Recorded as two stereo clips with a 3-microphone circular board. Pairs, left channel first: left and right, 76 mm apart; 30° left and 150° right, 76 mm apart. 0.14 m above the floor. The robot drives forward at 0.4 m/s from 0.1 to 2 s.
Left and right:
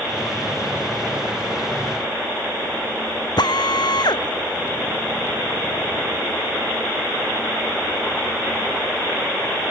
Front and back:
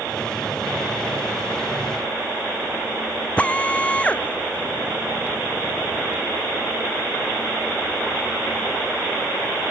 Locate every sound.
3.4 s a drill: 105° left